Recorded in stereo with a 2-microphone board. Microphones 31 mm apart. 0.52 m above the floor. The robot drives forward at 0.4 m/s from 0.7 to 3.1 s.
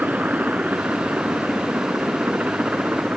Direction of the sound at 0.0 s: 70° right (ahead or behind).